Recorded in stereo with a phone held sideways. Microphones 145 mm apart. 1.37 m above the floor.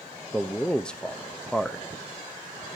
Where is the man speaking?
5° left (ahead or behind), 0.6 m.